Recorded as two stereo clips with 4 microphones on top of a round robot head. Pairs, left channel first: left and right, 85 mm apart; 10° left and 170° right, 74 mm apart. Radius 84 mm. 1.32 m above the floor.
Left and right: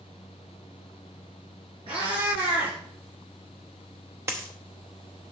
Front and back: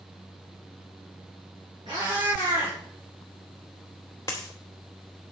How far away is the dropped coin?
About 0.7 m.